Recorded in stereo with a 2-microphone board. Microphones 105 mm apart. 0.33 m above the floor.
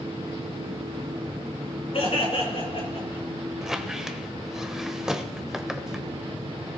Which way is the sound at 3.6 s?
5° right (ahead or behind).